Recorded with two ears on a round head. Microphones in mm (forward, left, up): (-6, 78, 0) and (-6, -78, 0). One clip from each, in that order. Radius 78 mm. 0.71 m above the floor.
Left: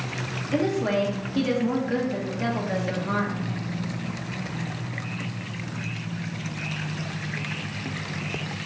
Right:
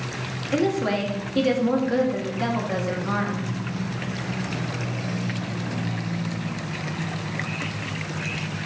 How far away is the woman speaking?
About 1.2 m.